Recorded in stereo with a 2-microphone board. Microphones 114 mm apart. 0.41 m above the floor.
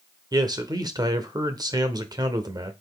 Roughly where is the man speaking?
Right.